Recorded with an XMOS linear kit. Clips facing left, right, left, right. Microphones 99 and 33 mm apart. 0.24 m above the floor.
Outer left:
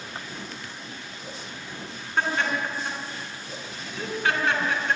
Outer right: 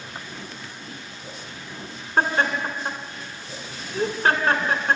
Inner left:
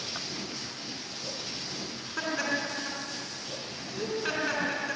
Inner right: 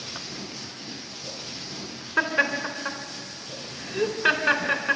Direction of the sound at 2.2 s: 40° right (ahead or behind).